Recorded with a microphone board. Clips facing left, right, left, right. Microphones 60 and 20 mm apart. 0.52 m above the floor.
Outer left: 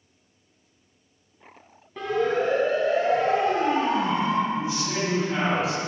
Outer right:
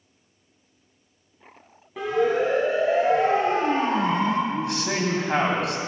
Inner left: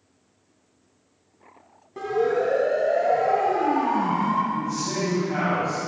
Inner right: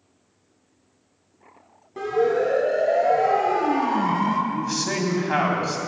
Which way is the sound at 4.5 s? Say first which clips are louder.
Outer right 1 dB, inner right 1 dB; 75° right (ahead or behind).